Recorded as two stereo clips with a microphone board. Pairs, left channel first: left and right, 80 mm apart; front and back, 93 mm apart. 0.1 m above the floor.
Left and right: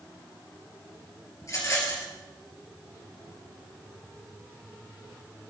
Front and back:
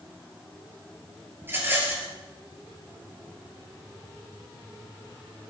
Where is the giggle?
I don't hear a giggle.